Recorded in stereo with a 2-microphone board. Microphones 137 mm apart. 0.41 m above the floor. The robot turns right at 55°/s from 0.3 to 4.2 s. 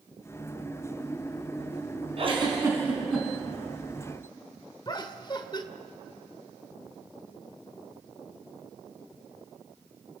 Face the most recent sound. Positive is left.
turn(degrees=35)  # may be behind; listen again after turning